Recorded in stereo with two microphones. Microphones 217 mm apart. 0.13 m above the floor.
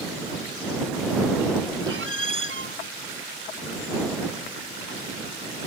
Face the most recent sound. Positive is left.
turn(degrees=-65)  # may be behind; listen again after turning